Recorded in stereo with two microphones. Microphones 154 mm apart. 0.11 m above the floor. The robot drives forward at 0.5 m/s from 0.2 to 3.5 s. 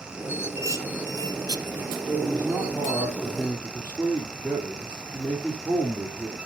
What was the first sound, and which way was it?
Dishes clattering, 20° right (ahead or behind).